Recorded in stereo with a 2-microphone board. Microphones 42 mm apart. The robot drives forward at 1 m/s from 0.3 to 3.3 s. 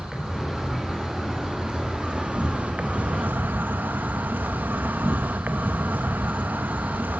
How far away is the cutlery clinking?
No cutlery clinking in this recording.